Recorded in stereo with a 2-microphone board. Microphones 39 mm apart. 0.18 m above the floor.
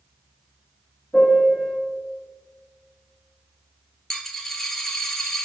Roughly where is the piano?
Centre.